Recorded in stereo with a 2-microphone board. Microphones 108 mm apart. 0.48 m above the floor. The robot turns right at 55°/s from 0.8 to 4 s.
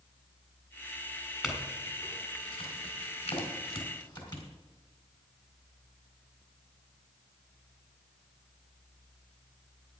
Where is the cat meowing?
No cat meowing in this recording.